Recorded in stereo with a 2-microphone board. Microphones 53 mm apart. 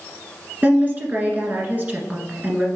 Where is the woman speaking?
35° right (ahead or behind), 1.5 m.